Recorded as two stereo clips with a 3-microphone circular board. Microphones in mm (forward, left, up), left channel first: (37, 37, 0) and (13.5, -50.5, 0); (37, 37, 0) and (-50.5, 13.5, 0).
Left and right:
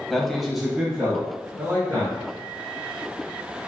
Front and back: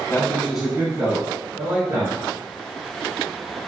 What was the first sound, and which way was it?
A man speaking, 15° right.